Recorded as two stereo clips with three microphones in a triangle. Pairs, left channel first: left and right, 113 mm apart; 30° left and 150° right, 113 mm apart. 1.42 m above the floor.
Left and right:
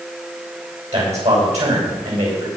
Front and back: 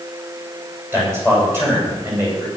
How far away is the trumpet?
No trumpet in this recording.